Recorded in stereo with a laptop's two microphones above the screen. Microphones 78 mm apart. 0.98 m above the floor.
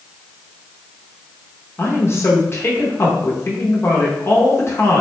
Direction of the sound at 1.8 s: 35° left (ahead or behind).